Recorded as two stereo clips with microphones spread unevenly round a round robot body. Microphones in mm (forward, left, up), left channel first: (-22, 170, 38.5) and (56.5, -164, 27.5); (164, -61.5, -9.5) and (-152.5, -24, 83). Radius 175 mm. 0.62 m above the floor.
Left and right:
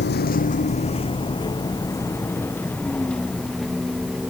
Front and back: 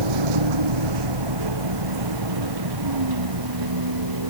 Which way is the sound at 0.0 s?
165° left.